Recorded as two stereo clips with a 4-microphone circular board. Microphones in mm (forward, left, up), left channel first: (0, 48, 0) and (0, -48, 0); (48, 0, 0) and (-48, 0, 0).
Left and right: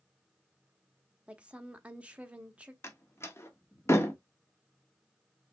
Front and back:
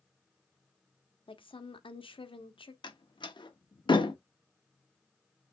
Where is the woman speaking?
15° right, 0.9 m.